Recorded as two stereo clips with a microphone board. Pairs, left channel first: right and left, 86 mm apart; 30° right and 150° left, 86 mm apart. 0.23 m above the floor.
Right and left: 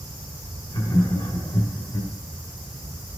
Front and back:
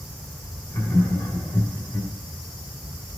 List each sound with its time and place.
0.7 s laughter: 90° right, 2 m